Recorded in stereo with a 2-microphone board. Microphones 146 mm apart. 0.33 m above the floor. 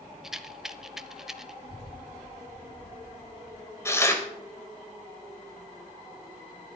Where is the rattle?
5° right (ahead or behind), 0.5 m.